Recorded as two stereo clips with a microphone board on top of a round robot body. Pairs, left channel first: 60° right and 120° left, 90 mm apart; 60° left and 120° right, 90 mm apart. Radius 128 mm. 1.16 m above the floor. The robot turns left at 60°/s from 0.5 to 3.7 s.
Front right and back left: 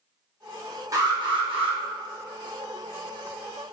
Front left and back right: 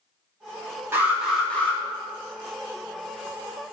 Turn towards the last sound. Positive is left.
turn(degrees=10)